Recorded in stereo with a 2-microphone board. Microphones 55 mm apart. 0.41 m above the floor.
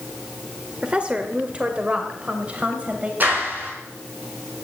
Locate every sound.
0.8 s a woman speaking: 20° right (ahead or behind), 1.3 m; by 3.1 s 25° right (ahead or behind), 2.5 m
3.2 s a clap: 35° right (ahead or behind), 5 m